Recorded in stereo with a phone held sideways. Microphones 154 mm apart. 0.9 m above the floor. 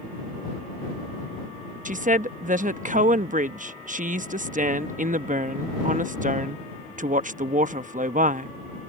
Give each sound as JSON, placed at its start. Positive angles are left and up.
{"t": 1.9, "sound": "a woman speaking", "side_deg": -55}